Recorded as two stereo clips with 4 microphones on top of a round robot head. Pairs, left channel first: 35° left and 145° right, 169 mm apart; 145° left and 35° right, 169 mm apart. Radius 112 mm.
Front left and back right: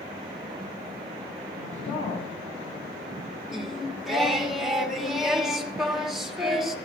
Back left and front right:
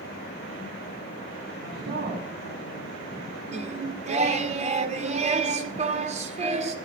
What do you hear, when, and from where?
1.6 s a woman speaking: 10° right, 4 m; by 2.9 s 25° right, 4.5 m
3.5 s singing: 55° right, 1.6 m